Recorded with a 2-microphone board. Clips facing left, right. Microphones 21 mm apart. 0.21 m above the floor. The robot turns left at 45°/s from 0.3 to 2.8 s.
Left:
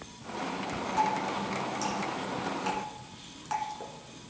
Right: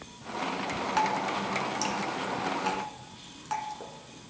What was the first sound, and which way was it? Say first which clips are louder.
Dripping: even; 65° right (ahead or behind).